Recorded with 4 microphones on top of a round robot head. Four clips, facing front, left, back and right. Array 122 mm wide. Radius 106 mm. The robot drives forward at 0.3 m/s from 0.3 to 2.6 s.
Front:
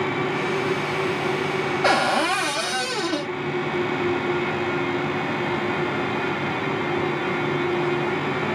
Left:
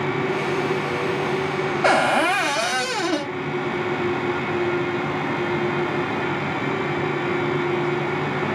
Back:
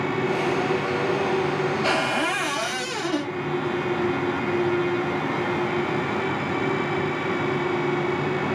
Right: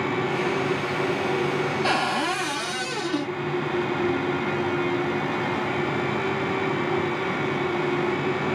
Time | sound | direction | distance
1.8 | a cupboard door | 55° left | 0.6 m